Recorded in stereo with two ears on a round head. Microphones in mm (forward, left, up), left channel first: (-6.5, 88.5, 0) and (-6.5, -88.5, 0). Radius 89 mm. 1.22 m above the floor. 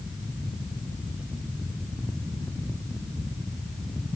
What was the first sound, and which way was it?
Only background noise.